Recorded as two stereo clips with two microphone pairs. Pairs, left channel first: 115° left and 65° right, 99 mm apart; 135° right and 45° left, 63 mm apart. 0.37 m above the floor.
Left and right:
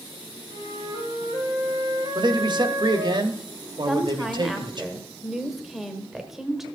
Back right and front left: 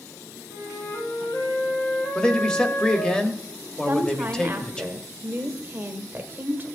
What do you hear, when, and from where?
0.5 s a flute: 110° right, 4 m
2.1 s a man speaking: 60° right, 1.2 m
3.9 s a woman speaking: 20° left, 1.4 m